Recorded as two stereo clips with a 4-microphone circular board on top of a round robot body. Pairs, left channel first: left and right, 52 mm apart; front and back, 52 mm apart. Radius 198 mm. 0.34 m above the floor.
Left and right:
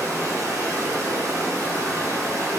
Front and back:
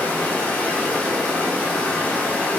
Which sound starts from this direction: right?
Running water, at 0.0 s.